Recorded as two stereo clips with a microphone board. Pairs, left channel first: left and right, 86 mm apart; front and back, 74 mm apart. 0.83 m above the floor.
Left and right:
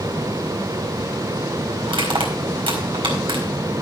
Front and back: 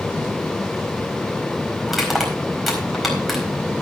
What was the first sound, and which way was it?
Crushing, 90° right.